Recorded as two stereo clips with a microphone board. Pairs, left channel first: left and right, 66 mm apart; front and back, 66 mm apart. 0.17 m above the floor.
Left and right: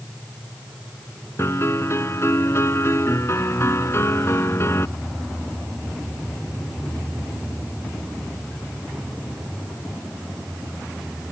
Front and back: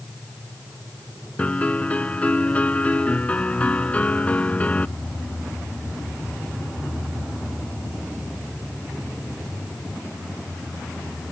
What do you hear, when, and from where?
1.4 s a piano: 60° left